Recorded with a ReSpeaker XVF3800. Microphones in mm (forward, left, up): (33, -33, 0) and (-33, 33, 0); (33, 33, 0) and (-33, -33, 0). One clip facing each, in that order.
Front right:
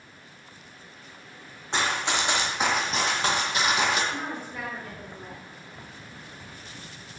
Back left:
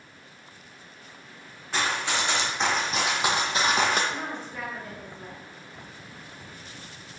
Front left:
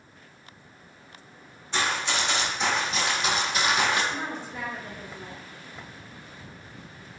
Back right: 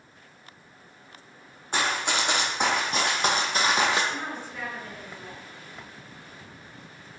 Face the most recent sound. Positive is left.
turn(degrees=30)